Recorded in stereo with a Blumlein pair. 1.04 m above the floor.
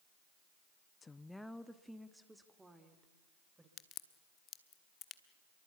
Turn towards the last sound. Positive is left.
turn(degrees=30)